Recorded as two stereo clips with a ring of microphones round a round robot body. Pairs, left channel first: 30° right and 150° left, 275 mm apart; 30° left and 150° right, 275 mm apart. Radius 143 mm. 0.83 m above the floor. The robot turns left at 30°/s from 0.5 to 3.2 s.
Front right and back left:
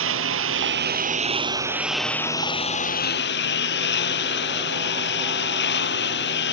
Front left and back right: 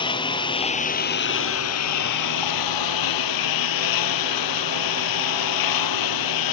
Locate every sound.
0.0 s a lawn mower: 105° left; by 6.5 s 25° left